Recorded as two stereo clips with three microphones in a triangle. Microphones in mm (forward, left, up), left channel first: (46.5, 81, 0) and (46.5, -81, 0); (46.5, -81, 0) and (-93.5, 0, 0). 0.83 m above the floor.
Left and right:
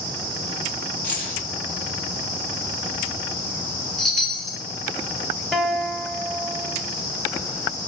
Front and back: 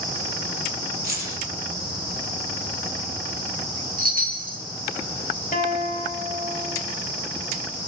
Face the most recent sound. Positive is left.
turn(degrees=0)